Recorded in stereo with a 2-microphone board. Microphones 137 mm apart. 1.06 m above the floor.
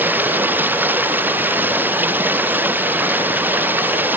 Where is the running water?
15° right (ahead or behind).